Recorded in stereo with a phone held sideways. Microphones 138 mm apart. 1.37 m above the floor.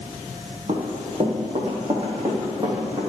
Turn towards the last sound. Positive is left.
turn(degrees=-25)  # may be behind; listen again after turning